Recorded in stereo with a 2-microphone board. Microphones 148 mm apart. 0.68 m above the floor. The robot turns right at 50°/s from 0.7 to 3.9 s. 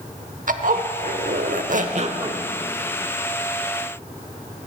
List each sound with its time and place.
0.5 s a zipper: 115° right, 0.8 m; by 2.4 s 30° right, 0.8 m